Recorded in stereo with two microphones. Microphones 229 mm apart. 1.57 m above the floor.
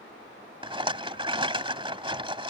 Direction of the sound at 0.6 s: 25° right (ahead or behind).